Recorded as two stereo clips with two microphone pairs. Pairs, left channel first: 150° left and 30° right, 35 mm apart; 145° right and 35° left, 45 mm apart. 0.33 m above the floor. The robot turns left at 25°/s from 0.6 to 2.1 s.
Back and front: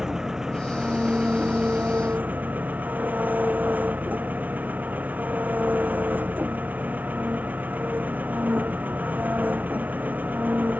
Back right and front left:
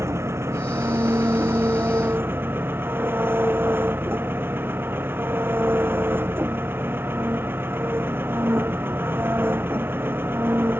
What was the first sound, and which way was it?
An engine running, 40° left.